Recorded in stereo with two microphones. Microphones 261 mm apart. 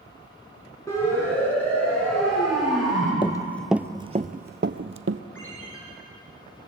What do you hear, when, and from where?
0.9 s a siren: 10° left (ahead or behind), 7 m; by 3.1 s 5° right (ahead or behind), 8 m
3.2 s running footsteps: 20° left (ahead or behind), 0.6 m; by 5.2 s 55° right (ahead or behind), 0.9 m
5.3 s a ringtone: 50° left (ahead or behind), 6.5 m